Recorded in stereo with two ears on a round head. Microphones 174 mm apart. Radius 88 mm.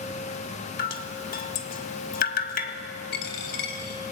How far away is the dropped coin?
About 3.5 m.